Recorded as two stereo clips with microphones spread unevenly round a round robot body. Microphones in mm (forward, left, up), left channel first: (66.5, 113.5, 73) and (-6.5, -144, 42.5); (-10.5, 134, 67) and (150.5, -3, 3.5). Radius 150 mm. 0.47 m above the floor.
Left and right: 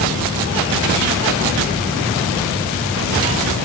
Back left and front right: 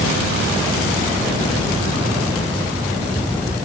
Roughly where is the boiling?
I don't hear boiling.